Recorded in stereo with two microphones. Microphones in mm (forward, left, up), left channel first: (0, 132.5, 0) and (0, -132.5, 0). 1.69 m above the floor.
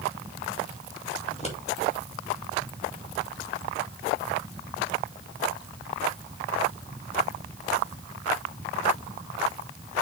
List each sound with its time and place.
1.3 s scissors: 25° left (ahead or behind), 2.5 m